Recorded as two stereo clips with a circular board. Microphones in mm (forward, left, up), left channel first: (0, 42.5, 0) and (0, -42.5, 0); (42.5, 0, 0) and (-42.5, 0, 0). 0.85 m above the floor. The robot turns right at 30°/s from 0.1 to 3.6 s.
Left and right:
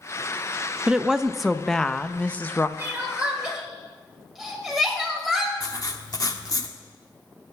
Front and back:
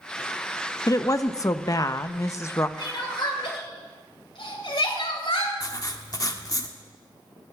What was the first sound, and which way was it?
A woman speaking, 15° right.